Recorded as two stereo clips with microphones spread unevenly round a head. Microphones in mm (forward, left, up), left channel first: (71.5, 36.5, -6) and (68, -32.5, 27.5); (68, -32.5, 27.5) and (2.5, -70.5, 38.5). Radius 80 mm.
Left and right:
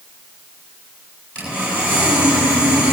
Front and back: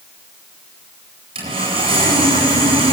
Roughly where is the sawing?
Behind.